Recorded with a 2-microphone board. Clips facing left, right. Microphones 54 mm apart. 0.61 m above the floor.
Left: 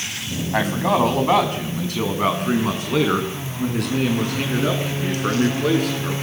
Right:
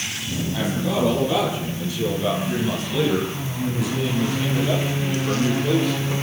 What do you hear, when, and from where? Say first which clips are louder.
0.5 s a man speaking: left 5 dB; 65° left (ahead or behind), 4.5 m; by 6.1 s 75° left (ahead or behind), 8.5 m